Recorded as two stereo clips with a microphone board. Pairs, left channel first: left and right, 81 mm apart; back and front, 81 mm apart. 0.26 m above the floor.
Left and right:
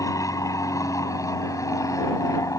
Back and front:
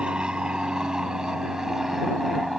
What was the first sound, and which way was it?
An aircraft, 75° left.